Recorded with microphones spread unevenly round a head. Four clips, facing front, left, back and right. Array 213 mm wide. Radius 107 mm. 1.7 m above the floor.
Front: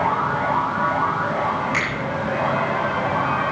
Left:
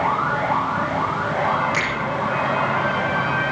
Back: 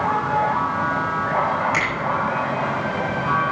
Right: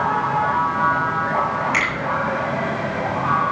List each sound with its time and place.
1.7 s a finger snap: straight behind, 8 m